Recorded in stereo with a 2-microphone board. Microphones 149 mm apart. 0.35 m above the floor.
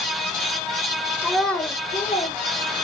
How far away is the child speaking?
About 0.8 m.